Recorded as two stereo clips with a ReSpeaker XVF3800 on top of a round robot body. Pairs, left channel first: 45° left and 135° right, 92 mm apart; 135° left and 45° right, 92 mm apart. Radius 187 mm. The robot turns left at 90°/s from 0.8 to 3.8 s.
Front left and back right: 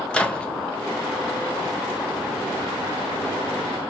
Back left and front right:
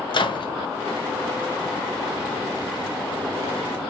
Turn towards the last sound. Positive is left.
turn(degrees=-150)